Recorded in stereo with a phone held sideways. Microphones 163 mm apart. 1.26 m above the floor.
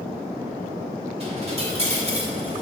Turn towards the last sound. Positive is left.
turn(degrees=-40)  # may be behind; listen again after turning